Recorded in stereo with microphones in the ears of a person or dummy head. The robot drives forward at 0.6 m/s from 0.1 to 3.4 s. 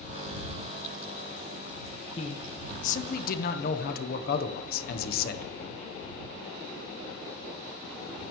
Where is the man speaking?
35° left (ahead or behind), 2.0 m; by 5.5 s 55° left (ahead or behind), 1.4 m.